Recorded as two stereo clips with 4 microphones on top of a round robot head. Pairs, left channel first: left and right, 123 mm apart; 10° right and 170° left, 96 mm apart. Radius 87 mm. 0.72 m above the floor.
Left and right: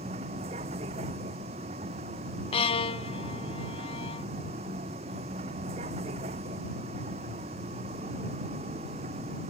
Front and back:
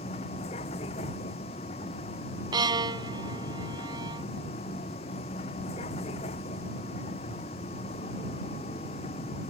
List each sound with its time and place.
0.0 s a vehicle: 40° right
2.5 s a violin: 130° left